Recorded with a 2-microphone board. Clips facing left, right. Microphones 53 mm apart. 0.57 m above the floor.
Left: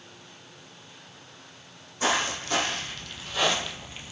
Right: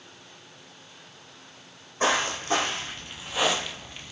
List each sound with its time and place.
2.0 s footsteps: 40° right (ahead or behind), 1.3 m; by 4.1 s 20° left (ahead or behind), 0.7 m